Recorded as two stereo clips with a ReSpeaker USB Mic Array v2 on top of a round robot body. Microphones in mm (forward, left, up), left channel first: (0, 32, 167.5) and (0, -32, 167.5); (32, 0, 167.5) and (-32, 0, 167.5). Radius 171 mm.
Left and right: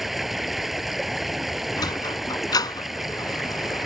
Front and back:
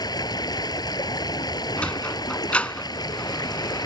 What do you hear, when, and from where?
0.0 s running water: straight ahead
1.8 s a sliding door: 70° left